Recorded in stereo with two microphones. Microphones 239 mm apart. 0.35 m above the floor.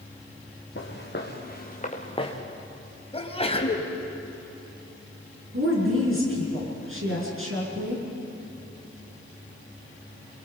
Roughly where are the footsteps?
Left.